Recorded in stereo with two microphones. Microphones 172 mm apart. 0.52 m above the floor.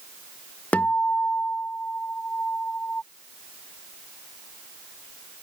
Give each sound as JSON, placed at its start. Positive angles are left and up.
{"t": 0.7, "sound": "a guitar", "side_deg": 10}